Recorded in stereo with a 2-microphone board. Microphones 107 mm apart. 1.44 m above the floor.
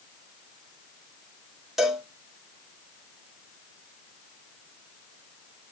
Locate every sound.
1.8 s a cowbell: centre (ahead or behind), 1.5 m